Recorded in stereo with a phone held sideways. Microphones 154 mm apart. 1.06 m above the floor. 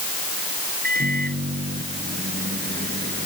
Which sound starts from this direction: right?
A microwave, at 0.8 s.